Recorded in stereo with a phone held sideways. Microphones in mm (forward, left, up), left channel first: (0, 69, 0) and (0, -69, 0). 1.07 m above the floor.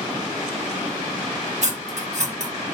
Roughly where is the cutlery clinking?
Right.